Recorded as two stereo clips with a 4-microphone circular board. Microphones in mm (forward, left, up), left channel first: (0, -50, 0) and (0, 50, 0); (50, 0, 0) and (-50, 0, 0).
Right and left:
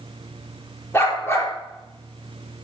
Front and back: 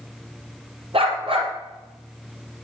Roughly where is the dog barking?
Behind right.